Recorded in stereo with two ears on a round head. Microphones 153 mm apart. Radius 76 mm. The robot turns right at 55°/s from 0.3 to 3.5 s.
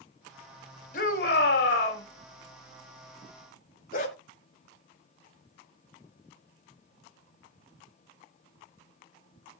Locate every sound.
0.9 s a shout: 55° left, 3.5 m; by 2.0 s 115° left, 3.5 m
3.9 s a dog barking: 55° left (ahead or behind), 3 m